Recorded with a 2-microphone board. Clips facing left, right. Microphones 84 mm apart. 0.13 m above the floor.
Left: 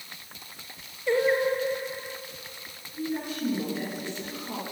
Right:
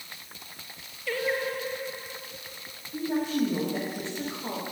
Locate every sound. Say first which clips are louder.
1.1 s singing: left 6 dB; 25° left (ahead or behind), 1.8 m
2.9 s a woman speaking: right 4 dB; 80° right, 9.5 m